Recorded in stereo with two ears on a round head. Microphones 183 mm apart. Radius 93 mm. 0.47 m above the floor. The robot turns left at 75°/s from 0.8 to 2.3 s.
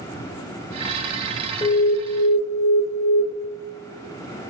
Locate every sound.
1.6 s an alarm: 155° left, 1.3 m; by 3.2 s 105° left, 1.3 m